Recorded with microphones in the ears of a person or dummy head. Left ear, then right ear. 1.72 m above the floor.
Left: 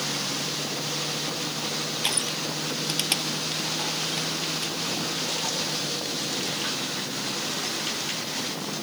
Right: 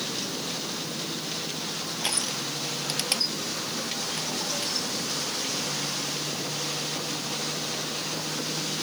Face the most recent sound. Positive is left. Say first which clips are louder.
# even
turn(degrees=-10)  # may be behind; listen again after turning